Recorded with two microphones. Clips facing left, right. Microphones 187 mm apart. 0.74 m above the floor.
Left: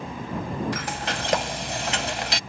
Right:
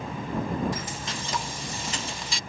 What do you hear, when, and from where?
0.7 s frying: 80° left